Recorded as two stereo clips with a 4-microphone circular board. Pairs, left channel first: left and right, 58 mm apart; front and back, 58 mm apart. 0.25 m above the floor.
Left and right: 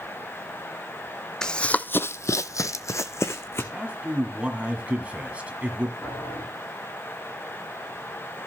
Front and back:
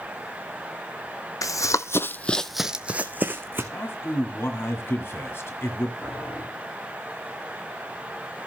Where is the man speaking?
30° right, 1.9 m.